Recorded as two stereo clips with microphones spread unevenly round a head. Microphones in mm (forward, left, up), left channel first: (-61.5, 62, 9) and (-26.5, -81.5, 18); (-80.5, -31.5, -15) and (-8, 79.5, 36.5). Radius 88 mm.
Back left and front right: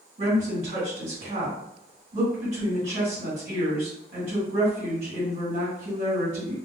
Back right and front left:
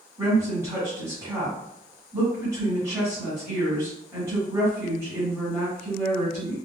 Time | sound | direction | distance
0.2 | a woman speaking | 20° right | 1.7 m